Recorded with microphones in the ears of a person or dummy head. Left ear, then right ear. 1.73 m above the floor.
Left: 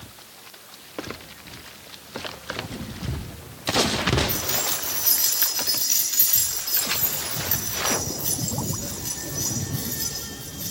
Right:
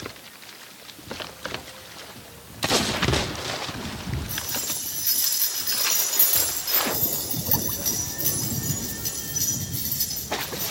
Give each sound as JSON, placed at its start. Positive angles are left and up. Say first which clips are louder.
{"t": 4.3, "sound": "keys jangling", "louder": "left 4 dB", "side_deg": 10, "distance_m": 7.0}